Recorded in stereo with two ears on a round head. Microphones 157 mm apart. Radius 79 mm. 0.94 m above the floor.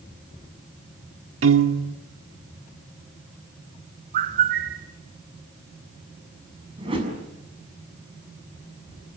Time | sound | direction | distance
1.4 | a piano | 80° right | 1.9 m
4.1 | a bird | 50° right (ahead or behind) | 1.4 m
6.8 | a whoosh | 30° right (ahead or behind) | 6.5 m